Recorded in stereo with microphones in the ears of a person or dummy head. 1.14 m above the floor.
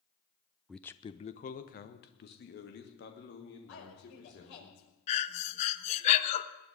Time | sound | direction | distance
0.7 | a man speaking | 5° right (ahead or behind) | 0.5 m
3.7 | a woman speaking | 75° left (ahead or behind) | 5 m
5.1 | breathing | 35° left (ahead or behind) | 0.8 m